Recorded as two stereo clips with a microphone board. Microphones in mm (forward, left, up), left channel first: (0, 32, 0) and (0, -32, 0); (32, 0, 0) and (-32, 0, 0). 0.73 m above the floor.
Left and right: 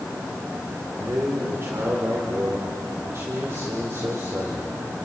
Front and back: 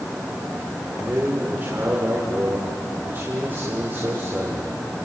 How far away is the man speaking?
About 3 m.